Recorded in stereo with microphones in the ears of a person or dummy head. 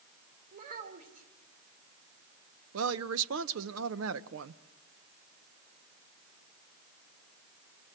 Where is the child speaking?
40° right (ahead or behind), 3.5 m.